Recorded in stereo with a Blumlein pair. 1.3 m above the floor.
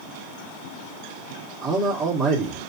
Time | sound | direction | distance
1.6 | a man speaking | 10° right | 1.6 m